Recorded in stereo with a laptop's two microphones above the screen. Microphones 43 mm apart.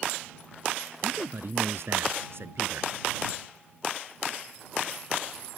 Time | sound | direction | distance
1.0 | a man speaking | 60° right (ahead or behind) | ?